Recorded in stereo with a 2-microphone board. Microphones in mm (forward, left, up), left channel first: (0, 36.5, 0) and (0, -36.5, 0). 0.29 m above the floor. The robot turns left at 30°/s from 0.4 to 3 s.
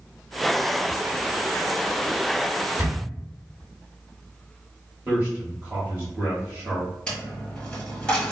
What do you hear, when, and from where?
2.8 s a camera shutter: 25° right (ahead or behind), 1.0 m
5.0 s a man speaking: 25° right (ahead or behind), 1.2 m
7.1 s a dropped coin: 10° left (ahead or behind), 1.2 m